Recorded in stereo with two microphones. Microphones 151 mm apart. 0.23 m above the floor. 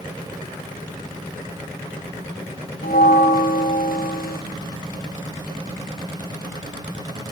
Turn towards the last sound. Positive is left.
turn(degrees=75)  # may be behind; listen again after turning